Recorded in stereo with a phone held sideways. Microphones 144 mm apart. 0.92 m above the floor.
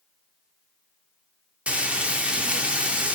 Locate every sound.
1.7 s frying: 10° right (ahead or behind), 0.6 m